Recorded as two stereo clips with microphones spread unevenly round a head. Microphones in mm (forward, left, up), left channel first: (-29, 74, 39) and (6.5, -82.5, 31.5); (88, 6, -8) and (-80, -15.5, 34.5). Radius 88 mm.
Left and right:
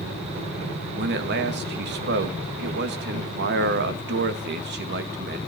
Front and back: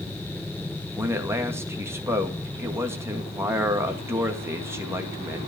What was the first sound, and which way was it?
A man speaking, 95° right.